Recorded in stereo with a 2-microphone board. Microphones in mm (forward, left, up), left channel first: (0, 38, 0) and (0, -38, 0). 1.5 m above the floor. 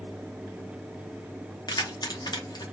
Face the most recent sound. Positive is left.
turn(degrees=60)  # may be behind; listen again after turning